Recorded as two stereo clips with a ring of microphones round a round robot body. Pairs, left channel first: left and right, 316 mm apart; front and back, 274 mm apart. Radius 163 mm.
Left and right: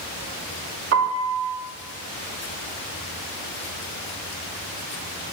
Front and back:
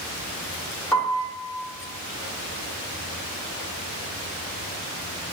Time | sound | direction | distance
0.9 | a piano | 85° right | 1.1 m